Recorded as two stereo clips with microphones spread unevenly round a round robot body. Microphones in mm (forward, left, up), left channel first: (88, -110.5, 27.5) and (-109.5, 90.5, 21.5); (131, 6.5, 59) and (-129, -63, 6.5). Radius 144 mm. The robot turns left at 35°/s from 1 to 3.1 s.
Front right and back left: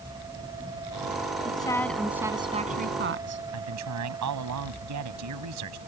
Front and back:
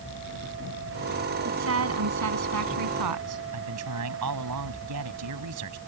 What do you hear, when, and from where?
1.4 s a woman speaking: 115° right; by 3.4 s 175° right
3.5 s a man speaking: 165° left